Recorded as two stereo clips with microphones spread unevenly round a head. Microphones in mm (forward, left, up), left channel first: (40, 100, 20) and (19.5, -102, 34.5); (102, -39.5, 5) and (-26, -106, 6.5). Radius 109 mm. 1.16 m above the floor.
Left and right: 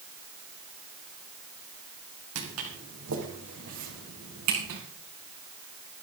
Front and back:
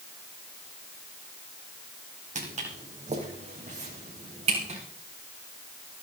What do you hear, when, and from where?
2.4 s footsteps: 115° right, 3 m; by 4.8 s 110° right, 4.5 m